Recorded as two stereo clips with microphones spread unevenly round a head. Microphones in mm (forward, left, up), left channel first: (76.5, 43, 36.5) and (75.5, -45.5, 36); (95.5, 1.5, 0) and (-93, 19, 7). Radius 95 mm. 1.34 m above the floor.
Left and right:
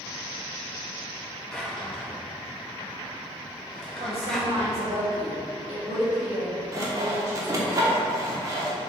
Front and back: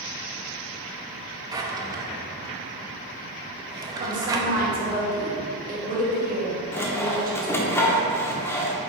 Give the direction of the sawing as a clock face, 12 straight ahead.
3 o'clock.